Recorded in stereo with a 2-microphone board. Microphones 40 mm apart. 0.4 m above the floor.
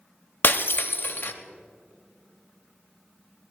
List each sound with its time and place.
0.4 s breaking glass: 60° left (ahead or behind), 0.7 m